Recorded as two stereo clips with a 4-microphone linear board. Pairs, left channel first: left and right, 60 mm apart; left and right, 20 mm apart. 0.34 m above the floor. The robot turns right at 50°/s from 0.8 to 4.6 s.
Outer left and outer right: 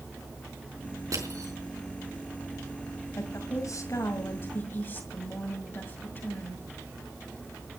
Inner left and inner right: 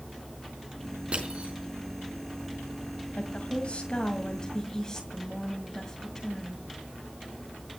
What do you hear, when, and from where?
1.1 s crushing: 70° right (ahead or behind), 4.5 m
3.2 s a woman speaking: 65° left, 2 m; by 6.6 s 140° left, 2 m